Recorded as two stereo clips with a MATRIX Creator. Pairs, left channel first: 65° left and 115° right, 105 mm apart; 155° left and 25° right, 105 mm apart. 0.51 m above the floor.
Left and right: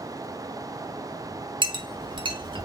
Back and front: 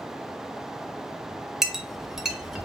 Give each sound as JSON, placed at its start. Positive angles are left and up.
{"t": 1.6, "sound": "a clink", "azimuth_deg": -105, "distance_m": 0.7}